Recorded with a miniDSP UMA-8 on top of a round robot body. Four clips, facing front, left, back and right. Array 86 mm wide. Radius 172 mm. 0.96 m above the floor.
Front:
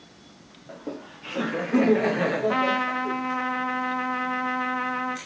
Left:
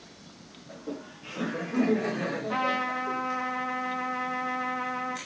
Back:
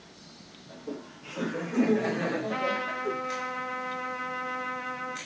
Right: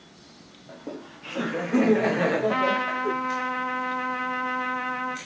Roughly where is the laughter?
Ahead right.